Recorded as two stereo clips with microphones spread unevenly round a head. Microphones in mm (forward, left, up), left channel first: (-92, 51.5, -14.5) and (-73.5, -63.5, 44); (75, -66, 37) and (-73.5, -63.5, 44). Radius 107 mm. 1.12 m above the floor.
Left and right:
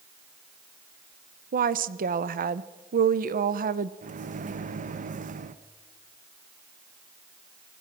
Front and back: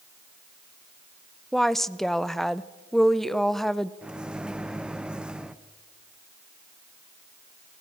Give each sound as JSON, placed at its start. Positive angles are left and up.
{"t": 1.5, "sound": "a woman speaking", "azimuth_deg": -85, "distance_m": 0.8}
{"t": 4.0, "sound": "a microwave", "azimuth_deg": -95, "distance_m": 0.9}